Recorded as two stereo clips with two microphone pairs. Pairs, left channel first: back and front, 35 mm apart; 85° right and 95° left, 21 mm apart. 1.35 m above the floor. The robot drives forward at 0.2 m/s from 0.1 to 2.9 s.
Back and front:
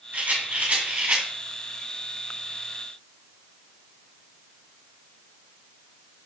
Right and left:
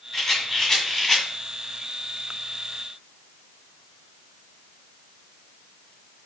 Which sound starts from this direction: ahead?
A rattle, at 0.1 s.